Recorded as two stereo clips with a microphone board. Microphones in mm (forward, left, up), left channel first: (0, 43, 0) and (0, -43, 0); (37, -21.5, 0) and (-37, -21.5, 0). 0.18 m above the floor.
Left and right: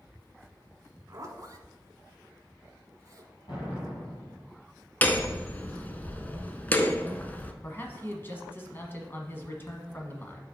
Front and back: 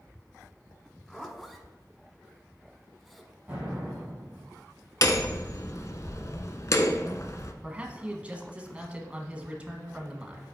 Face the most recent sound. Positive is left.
turn(degrees=120)